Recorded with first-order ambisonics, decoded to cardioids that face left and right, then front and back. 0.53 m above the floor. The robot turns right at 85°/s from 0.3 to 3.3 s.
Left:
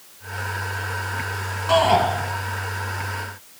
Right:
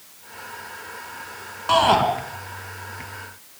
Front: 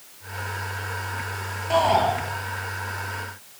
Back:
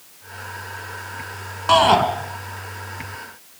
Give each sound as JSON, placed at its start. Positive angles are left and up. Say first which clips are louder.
{"t": 1.7, "sound": "a shout", "louder": "even, back 6 dB", "azimuth_deg": -170, "distance_m": 5.0}